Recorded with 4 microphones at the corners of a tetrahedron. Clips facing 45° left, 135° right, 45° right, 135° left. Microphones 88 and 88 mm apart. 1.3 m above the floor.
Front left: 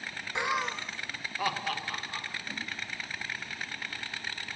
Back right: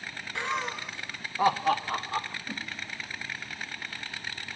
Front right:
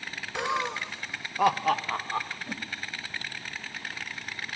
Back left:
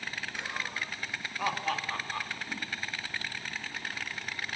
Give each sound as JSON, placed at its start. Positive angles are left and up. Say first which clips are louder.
{"t": 0.3, "sound": "laughter", "louder": "front left 1 dB, front right 11 dB", "azimuth_deg": -25, "distance_m": 0.7}
{"t": 2.5, "sound": "a whoosh", "louder": "back right 2 dB, front right 2 dB", "azimuth_deg": -55, "distance_m": 2.5}